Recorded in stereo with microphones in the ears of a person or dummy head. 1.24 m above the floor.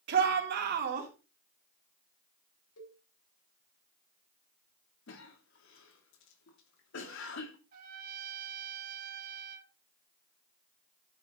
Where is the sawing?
I don't hear sawing.